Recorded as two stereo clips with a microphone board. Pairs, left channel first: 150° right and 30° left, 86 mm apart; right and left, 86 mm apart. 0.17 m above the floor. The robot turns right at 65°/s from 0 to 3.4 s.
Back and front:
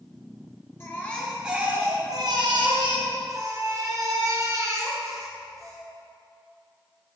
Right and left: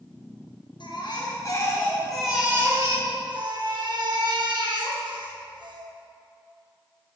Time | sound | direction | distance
0.8 | a baby crying | 90° right | 2 m